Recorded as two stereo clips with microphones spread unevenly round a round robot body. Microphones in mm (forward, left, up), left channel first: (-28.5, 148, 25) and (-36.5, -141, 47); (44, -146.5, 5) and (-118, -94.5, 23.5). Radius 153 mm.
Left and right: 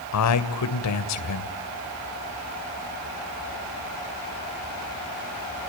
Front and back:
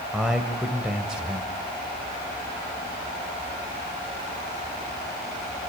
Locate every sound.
0.1 s a man speaking: 75° left, 2 m